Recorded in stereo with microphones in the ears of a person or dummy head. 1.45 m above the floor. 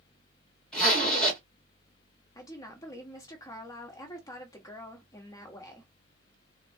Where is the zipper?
5° left (ahead or behind), 1.8 m.